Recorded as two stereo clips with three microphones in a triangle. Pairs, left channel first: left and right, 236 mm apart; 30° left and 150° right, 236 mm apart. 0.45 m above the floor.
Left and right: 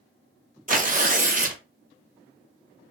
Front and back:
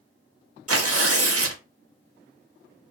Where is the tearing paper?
145° right, 0.6 m.